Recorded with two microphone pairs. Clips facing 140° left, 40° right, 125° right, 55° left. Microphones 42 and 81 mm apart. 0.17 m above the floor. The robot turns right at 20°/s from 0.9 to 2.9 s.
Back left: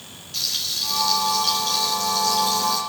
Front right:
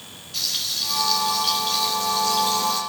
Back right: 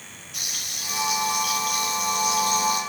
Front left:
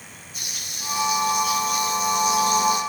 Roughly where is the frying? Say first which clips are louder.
Even, back right 1 dB; behind right.